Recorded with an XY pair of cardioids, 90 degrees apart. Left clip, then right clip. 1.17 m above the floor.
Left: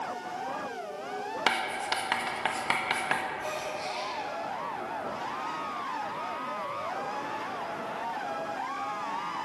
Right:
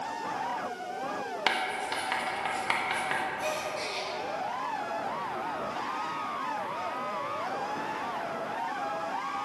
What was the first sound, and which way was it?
Writing, 35° left.